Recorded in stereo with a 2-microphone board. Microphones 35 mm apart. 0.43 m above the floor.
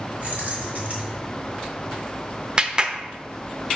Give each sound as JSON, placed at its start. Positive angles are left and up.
{"t": 0.2, "sound": "keys jangling", "side_deg": -55, "distance_m": 3.0}
{"t": 2.6, "sound": "a clap", "side_deg": -30, "distance_m": 0.6}